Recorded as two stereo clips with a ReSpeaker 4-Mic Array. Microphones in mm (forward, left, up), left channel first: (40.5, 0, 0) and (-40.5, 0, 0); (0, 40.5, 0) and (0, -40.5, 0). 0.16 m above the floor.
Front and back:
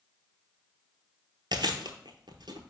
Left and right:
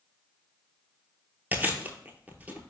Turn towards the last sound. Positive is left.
turn(degrees=-160)